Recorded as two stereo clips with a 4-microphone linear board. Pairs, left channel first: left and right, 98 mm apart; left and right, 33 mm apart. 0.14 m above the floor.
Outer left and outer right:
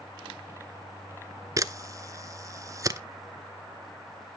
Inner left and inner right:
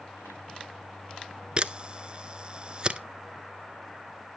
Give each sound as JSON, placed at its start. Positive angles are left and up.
{"t": 1.6, "sound": "a camera shutter", "side_deg": -35, "distance_m": 0.6}